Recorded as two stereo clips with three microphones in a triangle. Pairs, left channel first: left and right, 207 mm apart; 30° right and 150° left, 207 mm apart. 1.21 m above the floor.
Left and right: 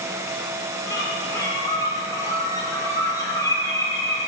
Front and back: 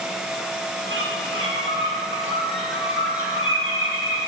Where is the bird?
165° left, 2.5 m.